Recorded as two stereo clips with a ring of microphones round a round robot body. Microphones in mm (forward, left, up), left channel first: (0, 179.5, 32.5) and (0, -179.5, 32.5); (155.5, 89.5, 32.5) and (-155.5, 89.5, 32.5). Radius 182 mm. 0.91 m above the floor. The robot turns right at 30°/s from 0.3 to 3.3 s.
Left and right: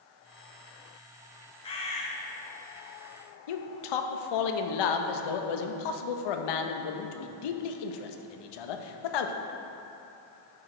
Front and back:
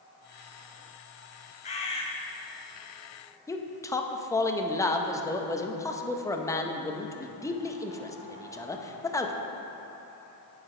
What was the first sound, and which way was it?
A bird, 35° left.